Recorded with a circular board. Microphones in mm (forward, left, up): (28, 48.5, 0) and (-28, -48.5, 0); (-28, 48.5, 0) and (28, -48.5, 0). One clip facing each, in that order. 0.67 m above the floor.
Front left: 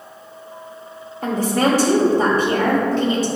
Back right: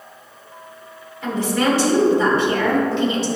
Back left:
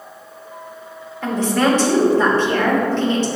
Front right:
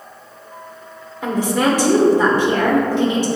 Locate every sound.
1.2 s a woman speaking: 15° left, 2 m